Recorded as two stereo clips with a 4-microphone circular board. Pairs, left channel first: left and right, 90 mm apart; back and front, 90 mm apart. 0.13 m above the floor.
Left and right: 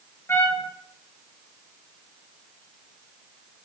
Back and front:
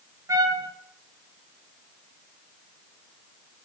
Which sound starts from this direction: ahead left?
A trumpet, at 0.3 s.